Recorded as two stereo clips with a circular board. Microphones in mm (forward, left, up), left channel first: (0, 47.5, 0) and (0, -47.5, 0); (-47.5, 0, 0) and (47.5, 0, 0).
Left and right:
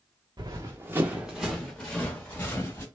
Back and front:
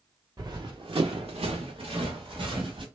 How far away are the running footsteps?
About 0.8 m.